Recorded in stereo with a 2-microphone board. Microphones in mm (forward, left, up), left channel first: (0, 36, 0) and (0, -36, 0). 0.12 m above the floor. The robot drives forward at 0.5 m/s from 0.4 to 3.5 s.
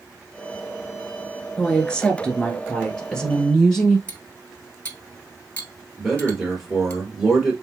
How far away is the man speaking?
About 3 m.